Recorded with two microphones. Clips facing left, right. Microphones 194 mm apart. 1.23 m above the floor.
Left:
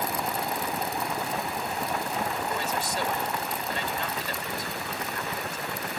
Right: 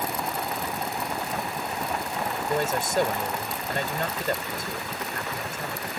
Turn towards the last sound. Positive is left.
turn(degrees=-50)  # may be behind; listen again after turning